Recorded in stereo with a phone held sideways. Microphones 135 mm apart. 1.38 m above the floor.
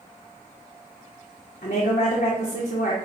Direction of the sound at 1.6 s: 75° left (ahead or behind).